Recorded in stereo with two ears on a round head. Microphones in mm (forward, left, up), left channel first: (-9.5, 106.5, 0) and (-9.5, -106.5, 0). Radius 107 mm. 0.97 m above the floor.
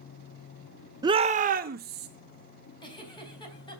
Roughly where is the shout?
Centre.